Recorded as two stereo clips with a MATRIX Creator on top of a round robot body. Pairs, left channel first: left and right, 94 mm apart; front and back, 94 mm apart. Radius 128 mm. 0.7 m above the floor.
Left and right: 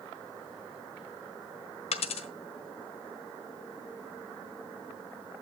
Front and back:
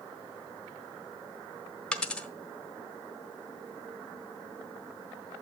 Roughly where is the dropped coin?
Left.